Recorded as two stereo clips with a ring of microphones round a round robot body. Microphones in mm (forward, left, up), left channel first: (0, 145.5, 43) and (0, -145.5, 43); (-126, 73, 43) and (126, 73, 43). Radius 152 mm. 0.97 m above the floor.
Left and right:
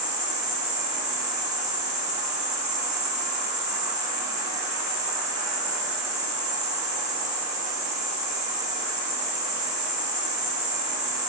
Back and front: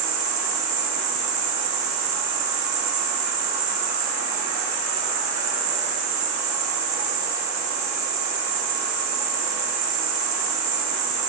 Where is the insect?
25° right, 3 m.